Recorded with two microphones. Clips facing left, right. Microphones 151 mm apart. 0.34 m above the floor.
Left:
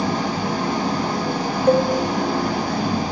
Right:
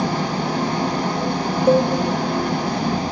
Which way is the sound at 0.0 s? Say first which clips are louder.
Even; 70° right (ahead or behind).